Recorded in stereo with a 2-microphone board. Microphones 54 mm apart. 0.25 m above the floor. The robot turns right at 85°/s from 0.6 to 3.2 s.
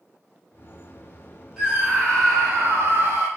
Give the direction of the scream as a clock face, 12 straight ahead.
6 o'clock.